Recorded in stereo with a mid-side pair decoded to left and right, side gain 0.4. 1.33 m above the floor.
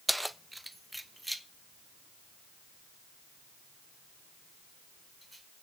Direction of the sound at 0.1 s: 5° right.